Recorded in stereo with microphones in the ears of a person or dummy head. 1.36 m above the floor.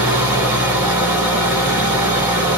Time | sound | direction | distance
0.0 | an engine running | 20° right (ahead or behind) | 1.5 m